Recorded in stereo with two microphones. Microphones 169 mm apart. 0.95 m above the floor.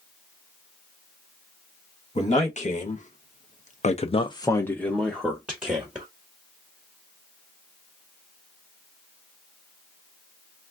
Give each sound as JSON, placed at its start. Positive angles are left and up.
{"t": 2.1, "sound": "a man speaking", "side_deg": 40, "distance_m": 1.2}